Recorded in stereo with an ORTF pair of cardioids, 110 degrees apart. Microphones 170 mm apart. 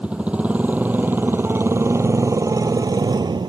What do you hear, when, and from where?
0.0 s a motorcycle: 5° right; by 3.5 s 25° right